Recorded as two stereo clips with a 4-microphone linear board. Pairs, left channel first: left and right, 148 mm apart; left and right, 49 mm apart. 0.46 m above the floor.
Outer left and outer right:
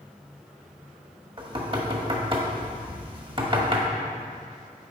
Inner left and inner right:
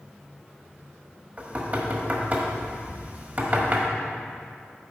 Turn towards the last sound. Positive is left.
turn(degrees=-35)  # may be behind; listen again after turning